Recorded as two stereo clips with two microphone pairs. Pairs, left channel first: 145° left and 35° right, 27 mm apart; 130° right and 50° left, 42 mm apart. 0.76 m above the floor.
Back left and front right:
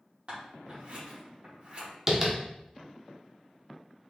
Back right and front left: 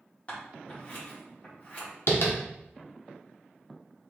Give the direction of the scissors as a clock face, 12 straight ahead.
2 o'clock.